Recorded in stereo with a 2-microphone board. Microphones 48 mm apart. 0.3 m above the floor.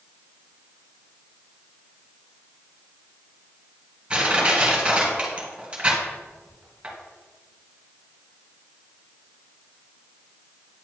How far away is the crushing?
About 2 m.